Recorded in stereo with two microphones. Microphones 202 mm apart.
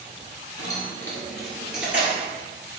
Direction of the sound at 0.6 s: 20° left (ahead or behind).